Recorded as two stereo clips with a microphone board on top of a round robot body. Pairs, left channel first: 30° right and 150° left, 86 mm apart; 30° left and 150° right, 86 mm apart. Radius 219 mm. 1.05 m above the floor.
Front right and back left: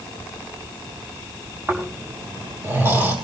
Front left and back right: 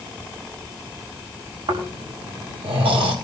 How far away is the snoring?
About 6 m.